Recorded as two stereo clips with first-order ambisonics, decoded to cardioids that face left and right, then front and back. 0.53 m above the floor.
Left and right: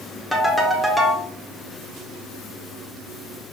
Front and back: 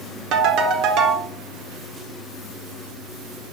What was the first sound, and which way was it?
A ringtone, 175° left.